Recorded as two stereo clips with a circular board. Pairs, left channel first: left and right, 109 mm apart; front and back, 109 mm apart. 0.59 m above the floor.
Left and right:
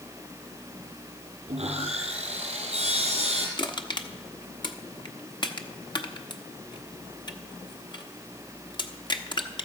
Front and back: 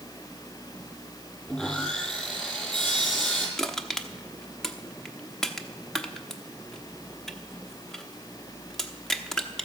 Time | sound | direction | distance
1.5 | sawing | 80° right | 3.5 m
3.6 | crushing | 85° left | 0.9 m